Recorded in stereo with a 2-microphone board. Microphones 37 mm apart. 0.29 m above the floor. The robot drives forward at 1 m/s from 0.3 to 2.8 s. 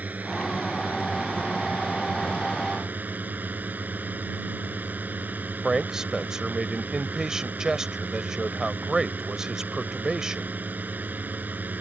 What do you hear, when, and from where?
0.0 s a drone: 50° right (ahead or behind); by 11.8 s 55° right (ahead or behind)
5.6 s a man speaking: 15° right (ahead or behind)